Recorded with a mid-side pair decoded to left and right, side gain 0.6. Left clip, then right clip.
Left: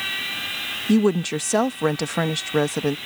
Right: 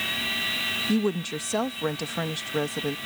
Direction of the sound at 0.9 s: 40° left.